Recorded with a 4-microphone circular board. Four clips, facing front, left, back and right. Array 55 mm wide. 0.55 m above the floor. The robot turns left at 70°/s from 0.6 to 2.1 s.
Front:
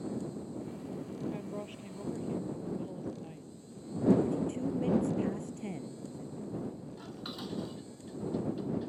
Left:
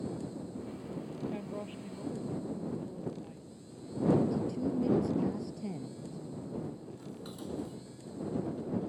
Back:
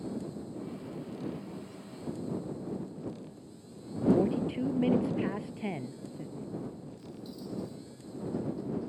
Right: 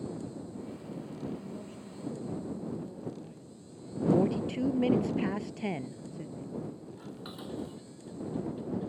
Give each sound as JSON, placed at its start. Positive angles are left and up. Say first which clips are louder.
{"t": 1.3, "sound": "a woman speaking", "louder": "left 2 dB, front 2 dB", "azimuth_deg": 60}
{"t": 4.1, "sound": "a woman speaking", "louder": "right 5 dB, back 2 dB", "azimuth_deg": -120}
{"t": 7.0, "sound": "dishes clattering", "louder": "right 1 dB, front 2 dB", "azimuth_deg": -25}